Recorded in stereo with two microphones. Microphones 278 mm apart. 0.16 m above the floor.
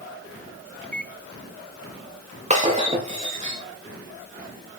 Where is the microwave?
5° left (ahead or behind), 0.9 m.